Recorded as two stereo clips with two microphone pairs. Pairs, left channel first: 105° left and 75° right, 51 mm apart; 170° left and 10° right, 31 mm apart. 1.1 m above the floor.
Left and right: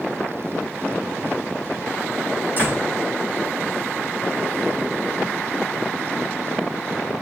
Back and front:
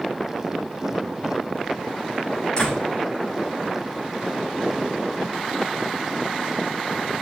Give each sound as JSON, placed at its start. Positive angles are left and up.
{"t": 2.6, "sound": "a door slam", "azimuth_deg": -130, "distance_m": 6.5}